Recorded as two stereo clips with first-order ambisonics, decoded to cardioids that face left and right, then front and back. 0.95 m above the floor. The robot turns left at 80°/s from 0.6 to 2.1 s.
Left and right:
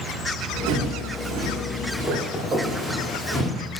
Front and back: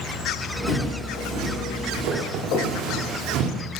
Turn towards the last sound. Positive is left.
turn(degrees=-25)